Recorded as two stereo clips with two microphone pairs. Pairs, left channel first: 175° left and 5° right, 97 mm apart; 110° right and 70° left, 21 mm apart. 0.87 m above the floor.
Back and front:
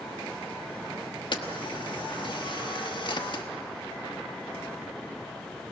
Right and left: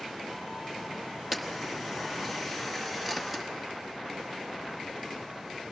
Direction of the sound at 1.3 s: 150° left.